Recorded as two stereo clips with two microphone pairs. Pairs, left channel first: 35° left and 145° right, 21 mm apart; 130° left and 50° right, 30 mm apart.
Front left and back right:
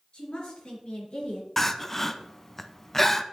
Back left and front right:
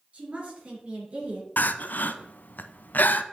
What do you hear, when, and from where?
0.1 s a woman speaking: straight ahead, 4.5 m
1.6 s crying: 110° left, 0.6 m